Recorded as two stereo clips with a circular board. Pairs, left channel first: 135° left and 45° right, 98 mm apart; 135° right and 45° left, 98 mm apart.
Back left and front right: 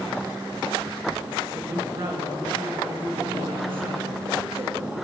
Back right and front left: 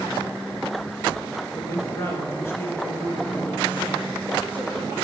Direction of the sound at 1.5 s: 85° right.